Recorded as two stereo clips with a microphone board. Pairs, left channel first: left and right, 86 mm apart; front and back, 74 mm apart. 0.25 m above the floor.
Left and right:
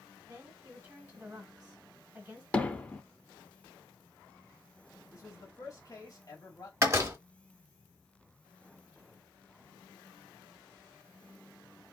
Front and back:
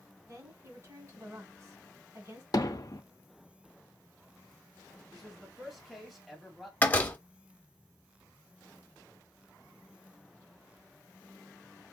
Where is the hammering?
15° left, 0.7 m.